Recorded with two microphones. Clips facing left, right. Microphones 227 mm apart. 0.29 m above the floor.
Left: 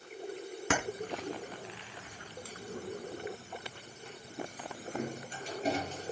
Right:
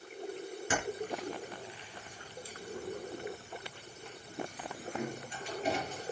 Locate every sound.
0.7 s keys jangling: 70° left (ahead or behind), 2 m; by 6.1 s 30° left (ahead or behind), 4 m